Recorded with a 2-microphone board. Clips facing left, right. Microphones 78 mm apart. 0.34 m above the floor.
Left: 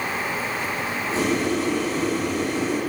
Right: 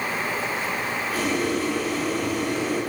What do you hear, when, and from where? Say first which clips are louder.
1.1 s boiling: left 3 dB; 25° left (ahead or behind), 10 m